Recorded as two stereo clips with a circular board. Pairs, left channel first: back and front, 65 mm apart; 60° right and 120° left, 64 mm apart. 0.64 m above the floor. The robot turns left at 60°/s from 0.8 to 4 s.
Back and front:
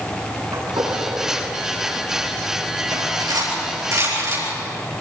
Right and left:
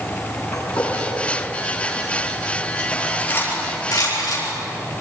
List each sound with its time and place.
0.5 s a gunshot: 30° right, 6 m; by 1.4 s 70° right, 6 m
2.9 s cutlery clinking: 30° left, 7.5 m; by 4.4 s 40° right, 7.5 m